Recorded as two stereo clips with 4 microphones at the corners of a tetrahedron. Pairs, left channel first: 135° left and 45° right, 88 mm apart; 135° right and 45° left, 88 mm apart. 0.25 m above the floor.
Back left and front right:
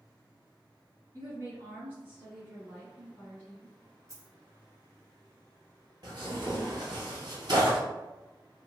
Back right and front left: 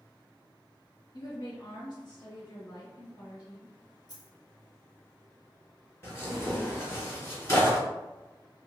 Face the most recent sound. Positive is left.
turn(degrees=-80)